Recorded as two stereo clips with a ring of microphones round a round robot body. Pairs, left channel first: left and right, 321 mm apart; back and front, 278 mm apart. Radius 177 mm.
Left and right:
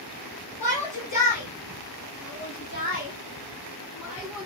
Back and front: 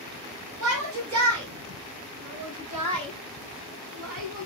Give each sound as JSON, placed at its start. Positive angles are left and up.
{"t": 0.6, "sound": "a shout", "azimuth_deg": 20, "distance_m": 5.0}